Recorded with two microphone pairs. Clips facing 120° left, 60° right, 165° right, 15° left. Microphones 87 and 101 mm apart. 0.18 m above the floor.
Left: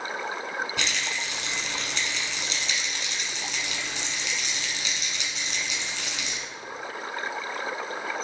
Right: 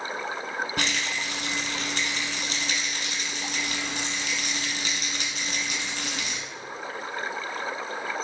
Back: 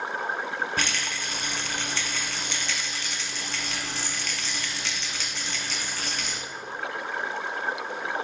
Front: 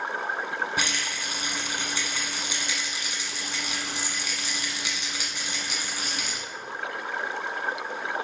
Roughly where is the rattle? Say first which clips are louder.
Right 2 dB, even; ahead right.